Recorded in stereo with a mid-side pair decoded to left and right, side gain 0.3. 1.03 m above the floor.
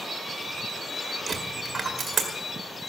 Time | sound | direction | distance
1.3 | a dropped coin | 55° right | 1.8 m